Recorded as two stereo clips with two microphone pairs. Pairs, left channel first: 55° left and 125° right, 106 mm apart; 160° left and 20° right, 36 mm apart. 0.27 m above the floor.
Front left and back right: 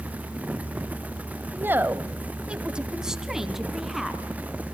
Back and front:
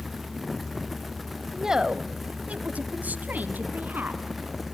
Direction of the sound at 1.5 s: 95° right.